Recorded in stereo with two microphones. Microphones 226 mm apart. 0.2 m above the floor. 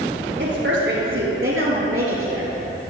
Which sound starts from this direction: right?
A woman speaking, at 0.4 s.